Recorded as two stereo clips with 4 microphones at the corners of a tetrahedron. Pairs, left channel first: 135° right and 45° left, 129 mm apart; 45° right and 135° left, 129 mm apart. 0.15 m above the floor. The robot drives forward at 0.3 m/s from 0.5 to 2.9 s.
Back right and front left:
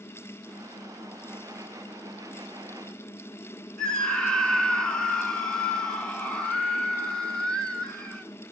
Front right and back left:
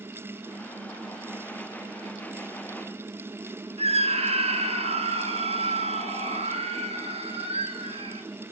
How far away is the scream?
About 1.9 m.